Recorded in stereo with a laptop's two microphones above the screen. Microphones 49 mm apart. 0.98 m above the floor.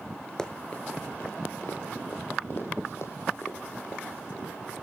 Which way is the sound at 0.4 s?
15° left (ahead or behind).